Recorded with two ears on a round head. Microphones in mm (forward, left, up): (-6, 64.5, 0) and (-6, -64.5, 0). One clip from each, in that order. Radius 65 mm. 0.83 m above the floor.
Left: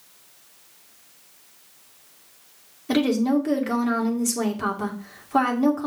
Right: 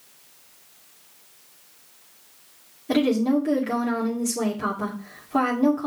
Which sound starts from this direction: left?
A woman speaking, at 2.9 s.